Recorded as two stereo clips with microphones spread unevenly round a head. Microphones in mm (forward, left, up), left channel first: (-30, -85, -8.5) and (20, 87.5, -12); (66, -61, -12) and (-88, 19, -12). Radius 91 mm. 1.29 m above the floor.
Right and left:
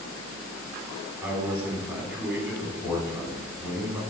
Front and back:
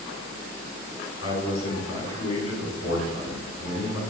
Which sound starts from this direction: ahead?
A man speaking, at 1.2 s.